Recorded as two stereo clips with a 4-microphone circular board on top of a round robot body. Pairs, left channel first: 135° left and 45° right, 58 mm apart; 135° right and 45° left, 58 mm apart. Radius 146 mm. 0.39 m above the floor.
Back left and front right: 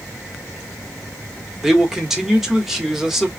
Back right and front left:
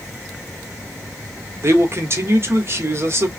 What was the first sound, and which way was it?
A man speaking, 35° left.